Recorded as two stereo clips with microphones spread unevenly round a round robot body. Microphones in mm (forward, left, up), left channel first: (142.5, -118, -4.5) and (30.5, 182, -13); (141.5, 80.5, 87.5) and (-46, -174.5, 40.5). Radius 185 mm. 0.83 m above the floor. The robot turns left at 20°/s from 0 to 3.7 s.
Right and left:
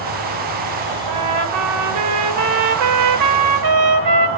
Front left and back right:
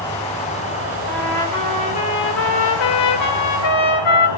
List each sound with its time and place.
0.0 s an insect: 135° left, 7 m; by 4.4 s 60° left, 7 m
1.1 s a trumpet: 140° left, 2.5 m; by 4.3 s 90° left, 2.5 m